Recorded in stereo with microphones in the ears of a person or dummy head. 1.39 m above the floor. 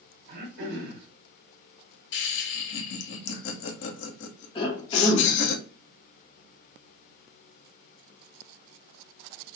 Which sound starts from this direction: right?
Throat clearing, at 0.3 s.